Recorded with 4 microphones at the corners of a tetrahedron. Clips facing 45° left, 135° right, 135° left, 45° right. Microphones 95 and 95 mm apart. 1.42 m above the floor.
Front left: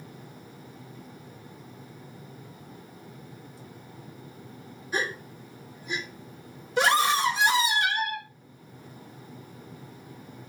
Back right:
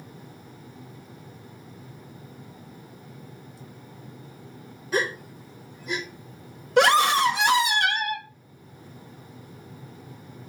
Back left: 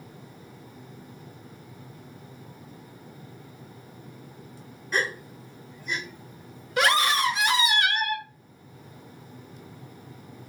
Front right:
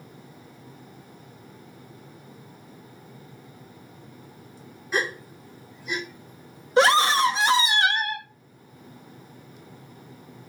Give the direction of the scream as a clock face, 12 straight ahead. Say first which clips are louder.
Back right 4 dB, front right 5 dB; 4 o'clock.